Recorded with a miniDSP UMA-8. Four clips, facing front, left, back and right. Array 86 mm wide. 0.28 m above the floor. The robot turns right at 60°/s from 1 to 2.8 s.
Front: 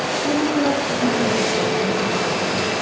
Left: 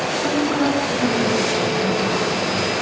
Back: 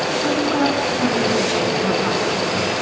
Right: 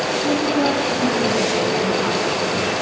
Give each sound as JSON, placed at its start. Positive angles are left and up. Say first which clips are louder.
{"t": 0.2, "sound": "a woman speaking", "louder": "even, front 1 dB", "azimuth_deg": 175, "distance_m": 2.0}